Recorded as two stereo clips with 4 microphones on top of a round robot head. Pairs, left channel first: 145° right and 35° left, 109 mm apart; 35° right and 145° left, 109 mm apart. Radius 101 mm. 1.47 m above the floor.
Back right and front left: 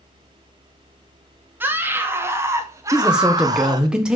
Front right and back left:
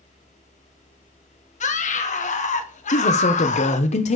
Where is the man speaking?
50° right, 1.2 m.